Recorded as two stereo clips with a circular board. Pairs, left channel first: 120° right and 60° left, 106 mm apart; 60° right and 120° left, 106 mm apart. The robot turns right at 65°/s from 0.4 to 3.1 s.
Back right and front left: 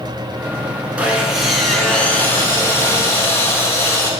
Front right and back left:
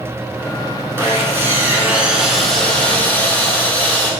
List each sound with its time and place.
1.0 s sawing: 115° left, 0.6 m; by 4.1 s 110° right, 0.6 m